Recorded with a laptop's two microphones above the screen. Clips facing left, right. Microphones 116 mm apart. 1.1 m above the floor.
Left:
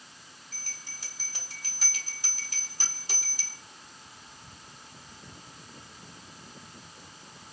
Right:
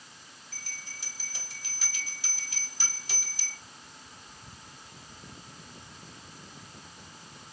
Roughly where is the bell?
Left.